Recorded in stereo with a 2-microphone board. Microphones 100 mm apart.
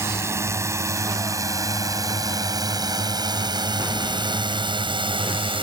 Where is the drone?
25° right (ahead or behind); by 5.6 s 60° right (ahead or behind).